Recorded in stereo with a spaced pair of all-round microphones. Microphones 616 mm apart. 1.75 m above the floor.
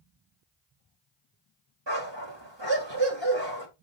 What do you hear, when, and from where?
1.9 s a dog barking: 45° right (ahead or behind), 2.5 m